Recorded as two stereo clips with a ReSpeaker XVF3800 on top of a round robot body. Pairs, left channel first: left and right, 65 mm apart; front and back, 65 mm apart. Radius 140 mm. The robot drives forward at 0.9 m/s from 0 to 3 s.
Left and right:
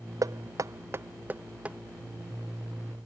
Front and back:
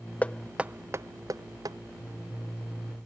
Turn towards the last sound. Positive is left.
turn(degrees=-170)